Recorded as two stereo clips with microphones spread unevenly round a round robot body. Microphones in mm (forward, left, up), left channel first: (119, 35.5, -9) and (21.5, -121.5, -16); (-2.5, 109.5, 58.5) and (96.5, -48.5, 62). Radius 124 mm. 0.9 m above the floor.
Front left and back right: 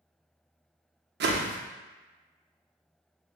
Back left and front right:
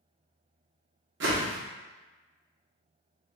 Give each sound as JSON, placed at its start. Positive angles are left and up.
{"t": 1.2, "sound": "a whoosh", "azimuth_deg": -100, "distance_m": 0.6}